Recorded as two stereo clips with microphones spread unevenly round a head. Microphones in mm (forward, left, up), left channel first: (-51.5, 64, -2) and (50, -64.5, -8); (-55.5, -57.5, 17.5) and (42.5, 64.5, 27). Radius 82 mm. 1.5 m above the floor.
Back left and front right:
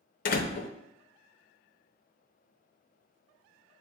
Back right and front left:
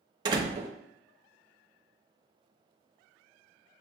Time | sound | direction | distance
0.2 | a door slam | 110° left | 0.5 m